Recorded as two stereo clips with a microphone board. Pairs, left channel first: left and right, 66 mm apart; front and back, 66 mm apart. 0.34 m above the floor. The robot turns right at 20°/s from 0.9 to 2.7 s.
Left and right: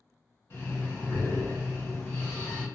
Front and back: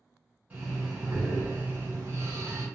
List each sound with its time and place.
0.5 s breathing: 120° left, 1.4 m; by 2.7 s 155° left, 1.4 m